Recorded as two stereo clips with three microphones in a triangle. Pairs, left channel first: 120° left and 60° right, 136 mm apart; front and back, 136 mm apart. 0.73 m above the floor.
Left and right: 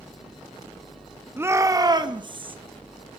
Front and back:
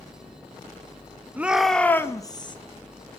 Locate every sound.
1.4 s a shout: 115° right, 0.8 m; by 2.6 s 35° right, 0.9 m